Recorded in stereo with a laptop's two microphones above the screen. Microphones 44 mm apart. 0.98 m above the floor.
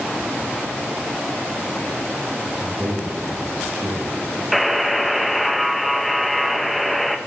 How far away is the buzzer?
About 0.6 m.